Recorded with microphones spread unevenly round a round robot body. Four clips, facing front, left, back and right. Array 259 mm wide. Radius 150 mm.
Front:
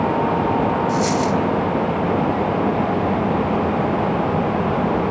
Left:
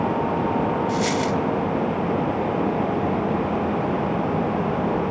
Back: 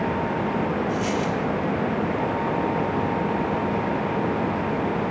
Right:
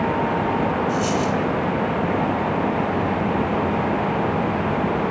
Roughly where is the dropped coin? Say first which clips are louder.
Right 1 dB, front 6 dB; ahead left.